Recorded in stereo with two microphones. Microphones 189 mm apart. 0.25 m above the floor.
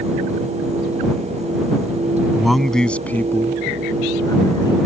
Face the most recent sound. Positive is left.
turn(degrees=25)  # may be behind; listen again after turning